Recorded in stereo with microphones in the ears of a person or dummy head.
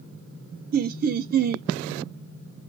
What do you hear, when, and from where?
0.7 s laughter: 45° right (ahead or behind), 0.5 m